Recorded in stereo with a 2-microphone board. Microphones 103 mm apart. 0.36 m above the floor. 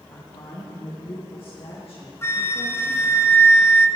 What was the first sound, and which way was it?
A woman speaking, 60° left (ahead or behind).